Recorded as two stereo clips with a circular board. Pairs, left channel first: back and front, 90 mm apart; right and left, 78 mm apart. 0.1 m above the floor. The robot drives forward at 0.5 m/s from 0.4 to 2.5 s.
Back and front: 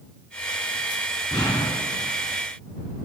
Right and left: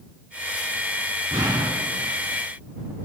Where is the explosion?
140° left, 1.2 m; by 2.1 s 150° left, 1.5 m.